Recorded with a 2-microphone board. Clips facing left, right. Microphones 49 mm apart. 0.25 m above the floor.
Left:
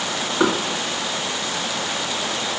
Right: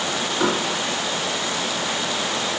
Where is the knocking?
25° left (ahead or behind), 2.5 m.